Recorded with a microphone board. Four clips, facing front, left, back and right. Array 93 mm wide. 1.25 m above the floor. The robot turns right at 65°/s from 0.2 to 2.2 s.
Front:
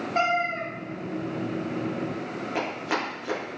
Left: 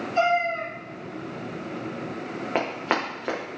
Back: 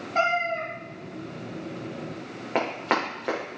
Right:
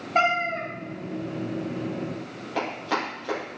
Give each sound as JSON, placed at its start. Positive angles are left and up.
{"t": 0.1, "sound": "a cat meowing", "azimuth_deg": -90, "distance_m": 3.0}
{"t": 2.5, "sound": "running footsteps", "azimuth_deg": 125, "distance_m": 4.0}